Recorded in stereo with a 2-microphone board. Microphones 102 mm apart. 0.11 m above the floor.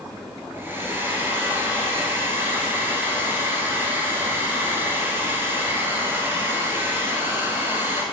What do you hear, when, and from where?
0.5 s a hair dryer: 20° right (ahead or behind), 1.8 m